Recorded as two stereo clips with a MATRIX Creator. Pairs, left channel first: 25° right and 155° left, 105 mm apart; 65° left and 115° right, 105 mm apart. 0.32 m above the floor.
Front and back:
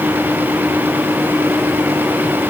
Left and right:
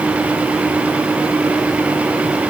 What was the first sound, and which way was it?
Only background noise.